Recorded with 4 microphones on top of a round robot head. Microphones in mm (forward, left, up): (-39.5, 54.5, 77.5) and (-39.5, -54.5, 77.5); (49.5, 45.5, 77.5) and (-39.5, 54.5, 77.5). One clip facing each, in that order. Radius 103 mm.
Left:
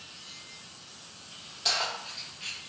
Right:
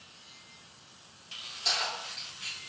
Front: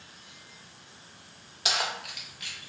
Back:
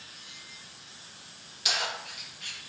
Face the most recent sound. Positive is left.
turn(degrees=-40)